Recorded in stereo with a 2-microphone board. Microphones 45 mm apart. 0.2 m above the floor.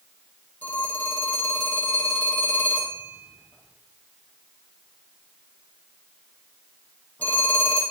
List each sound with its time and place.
0.6 s a phone ringing: 40° left (ahead or behind), 4.5 m